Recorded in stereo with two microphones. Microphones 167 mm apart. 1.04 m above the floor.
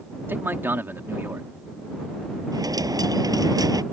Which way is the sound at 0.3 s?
10° right (ahead or behind).